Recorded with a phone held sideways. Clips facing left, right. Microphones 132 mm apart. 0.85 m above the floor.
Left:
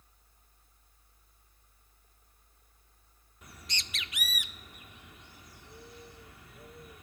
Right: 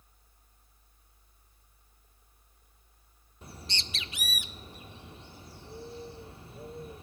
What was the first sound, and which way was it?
A fan, 5° right (ahead or behind).